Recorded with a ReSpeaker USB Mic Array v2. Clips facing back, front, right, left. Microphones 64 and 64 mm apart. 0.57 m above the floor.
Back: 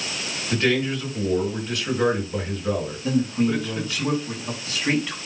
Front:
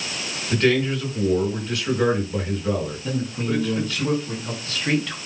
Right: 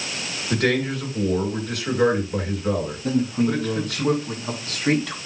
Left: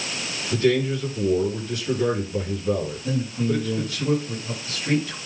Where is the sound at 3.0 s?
100° right, 5 m.